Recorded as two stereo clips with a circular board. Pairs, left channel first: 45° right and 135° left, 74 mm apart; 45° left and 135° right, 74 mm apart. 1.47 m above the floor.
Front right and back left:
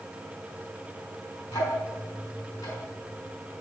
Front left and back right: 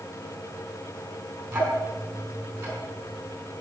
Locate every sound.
1.5 s ticking: 70° right, 4.5 m